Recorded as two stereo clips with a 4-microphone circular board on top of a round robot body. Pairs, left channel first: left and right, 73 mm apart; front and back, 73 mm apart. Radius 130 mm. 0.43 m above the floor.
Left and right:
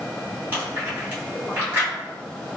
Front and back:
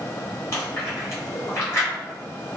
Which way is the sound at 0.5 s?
35° right.